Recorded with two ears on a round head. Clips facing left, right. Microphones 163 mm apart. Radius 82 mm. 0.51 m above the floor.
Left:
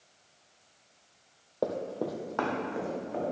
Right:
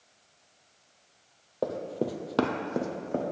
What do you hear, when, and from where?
1.6 s running footsteps: centre (ahead or behind), 0.7 m; by 3.2 s 50° right (ahead or behind), 1.3 m